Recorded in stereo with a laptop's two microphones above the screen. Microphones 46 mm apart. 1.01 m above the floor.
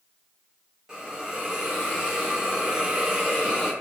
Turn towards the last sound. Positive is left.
turn(degrees=-10)  # may be behind; listen again after turning